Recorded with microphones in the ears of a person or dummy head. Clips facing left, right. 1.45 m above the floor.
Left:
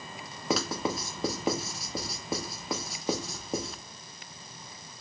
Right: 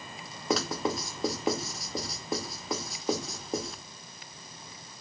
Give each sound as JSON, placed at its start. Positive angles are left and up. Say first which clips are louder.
{"t": 0.5, "sound": "writing", "louder": "right 1 dB", "side_deg": 5, "distance_m": 0.7}